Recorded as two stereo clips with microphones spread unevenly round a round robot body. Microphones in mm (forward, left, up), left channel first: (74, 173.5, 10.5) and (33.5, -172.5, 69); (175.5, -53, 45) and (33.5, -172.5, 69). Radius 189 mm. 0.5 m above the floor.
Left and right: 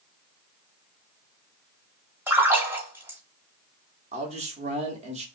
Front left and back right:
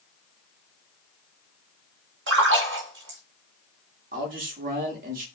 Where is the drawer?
No drawer in this recording.